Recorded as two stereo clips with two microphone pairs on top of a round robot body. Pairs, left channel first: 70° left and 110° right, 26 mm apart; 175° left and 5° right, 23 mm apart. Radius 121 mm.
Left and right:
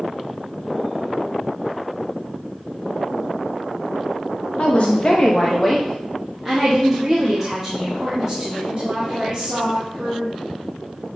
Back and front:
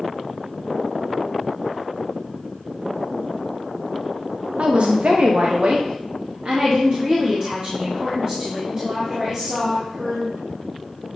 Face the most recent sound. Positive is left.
turn(degrees=-60)